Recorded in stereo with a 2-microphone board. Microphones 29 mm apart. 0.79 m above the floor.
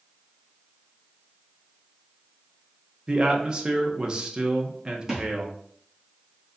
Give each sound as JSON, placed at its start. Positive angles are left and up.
{"t": 3.1, "sound": "a man speaking", "side_deg": -30, "distance_m": 1.0}
{"t": 5.1, "sound": "a thud", "side_deg": -10, "distance_m": 1.7}